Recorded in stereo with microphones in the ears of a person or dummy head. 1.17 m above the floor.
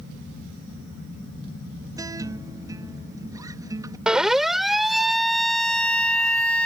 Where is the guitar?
15° right (ahead or behind).